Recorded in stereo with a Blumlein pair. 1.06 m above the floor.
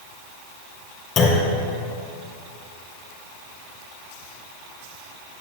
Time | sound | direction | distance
1.2 | a clunk | 30° left | 2 m